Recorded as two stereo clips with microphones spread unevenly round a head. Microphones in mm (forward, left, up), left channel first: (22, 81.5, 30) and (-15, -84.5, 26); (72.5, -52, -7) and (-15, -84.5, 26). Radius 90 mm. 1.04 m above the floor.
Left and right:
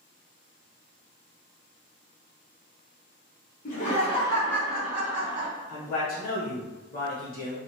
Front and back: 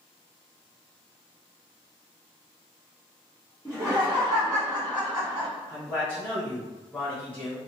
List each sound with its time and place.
3.6 s laughter: 115° left, 1.0 m; by 5.5 s 160° right, 1.1 m
5.7 s a man speaking: 75° left, 1.2 m